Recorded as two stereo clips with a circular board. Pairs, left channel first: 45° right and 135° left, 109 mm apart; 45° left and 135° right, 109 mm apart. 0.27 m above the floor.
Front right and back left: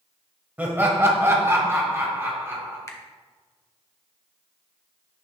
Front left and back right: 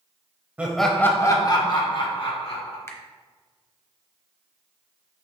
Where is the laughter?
Straight behind, 0.9 m; by 2.8 s 70° left, 2.5 m.